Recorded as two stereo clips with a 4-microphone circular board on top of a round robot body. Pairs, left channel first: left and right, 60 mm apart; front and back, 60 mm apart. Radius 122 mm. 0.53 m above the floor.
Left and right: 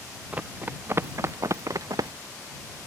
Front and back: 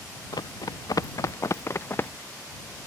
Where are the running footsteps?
20° right; by 2.1 s 60° right.